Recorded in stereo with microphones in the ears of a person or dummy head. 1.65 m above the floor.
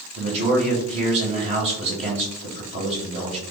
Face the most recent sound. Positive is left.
turn(degrees=-35)  # may be behind; listen again after turning